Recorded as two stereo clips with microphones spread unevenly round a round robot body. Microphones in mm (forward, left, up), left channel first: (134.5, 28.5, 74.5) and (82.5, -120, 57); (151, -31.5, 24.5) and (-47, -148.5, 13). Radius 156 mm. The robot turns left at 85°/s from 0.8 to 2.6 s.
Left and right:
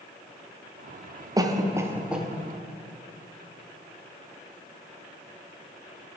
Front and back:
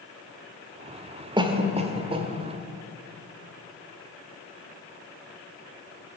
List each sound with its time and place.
1.4 s a cough: 110° right, 0.8 m; by 2.3 s 175° left, 0.8 m